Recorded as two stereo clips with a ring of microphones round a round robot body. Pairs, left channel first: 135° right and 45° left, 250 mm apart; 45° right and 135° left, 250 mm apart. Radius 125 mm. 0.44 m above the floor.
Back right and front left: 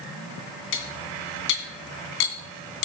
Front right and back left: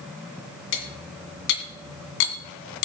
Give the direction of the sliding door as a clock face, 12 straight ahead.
No sliding door in this recording.